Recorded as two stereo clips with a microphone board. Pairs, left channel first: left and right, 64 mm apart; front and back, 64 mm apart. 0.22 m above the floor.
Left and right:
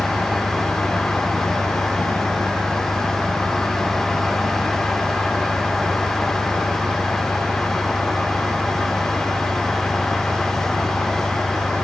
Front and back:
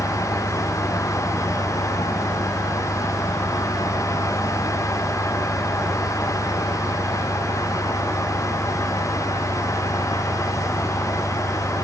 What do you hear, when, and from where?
0.0 s an engine running: 145° right